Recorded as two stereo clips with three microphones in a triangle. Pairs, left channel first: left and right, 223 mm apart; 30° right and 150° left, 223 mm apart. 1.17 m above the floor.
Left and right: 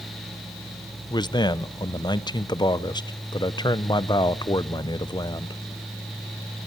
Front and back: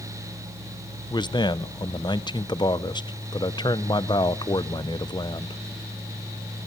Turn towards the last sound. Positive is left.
turn(degrees=30)